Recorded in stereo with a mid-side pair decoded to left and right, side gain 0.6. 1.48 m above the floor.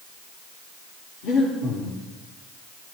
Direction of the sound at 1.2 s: 70° left.